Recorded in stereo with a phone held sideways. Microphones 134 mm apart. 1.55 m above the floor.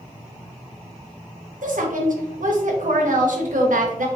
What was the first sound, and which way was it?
A woman speaking, 75° right (ahead or behind).